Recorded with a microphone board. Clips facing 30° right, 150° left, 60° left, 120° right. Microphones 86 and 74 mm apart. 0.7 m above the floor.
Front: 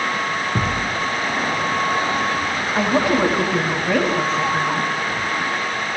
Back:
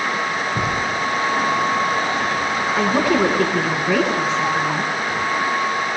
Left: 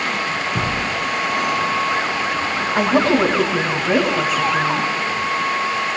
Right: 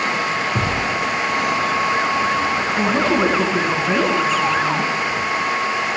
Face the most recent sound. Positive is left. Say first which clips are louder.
# even, left 4 dB
turn(degrees=20)